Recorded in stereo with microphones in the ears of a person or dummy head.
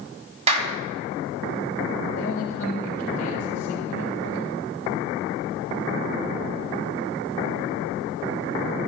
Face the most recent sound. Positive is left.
turn(degrees=15)  # may be behind; listen again after turning